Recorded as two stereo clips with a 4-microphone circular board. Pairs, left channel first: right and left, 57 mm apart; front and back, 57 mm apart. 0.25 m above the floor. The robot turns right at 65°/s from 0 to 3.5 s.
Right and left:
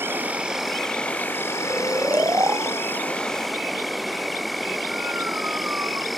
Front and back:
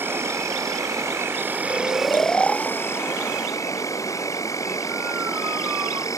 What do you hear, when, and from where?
0.0 s an insect: 135° left; by 6.2 s straight ahead
1.6 s snoring: 15° left; by 6.1 s 135° left